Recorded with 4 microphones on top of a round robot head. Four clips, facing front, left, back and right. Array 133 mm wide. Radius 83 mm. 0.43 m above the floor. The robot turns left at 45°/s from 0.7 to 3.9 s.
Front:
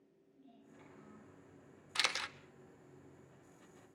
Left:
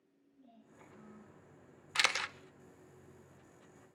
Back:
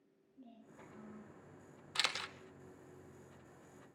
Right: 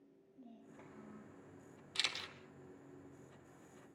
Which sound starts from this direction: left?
A camera shutter, at 1.9 s.